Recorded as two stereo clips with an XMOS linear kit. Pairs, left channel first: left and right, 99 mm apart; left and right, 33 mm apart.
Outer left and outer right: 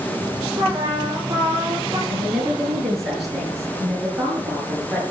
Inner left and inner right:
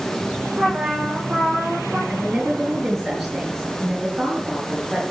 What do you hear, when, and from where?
0.6 s a trumpet: 40° right (ahead or behind), 7 m
2.1 s a woman speaking: centre (ahead or behind), 6.5 m